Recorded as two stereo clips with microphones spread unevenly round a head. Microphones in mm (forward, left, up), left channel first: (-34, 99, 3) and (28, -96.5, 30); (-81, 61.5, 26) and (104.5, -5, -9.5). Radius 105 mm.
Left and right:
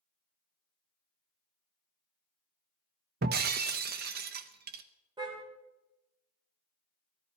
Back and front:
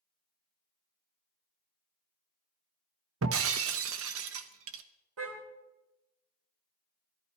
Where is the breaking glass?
40° right, 0.8 m.